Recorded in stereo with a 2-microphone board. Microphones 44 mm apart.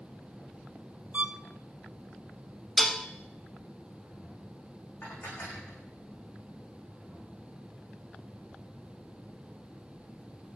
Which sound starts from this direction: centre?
Dishes clattering, at 2.8 s.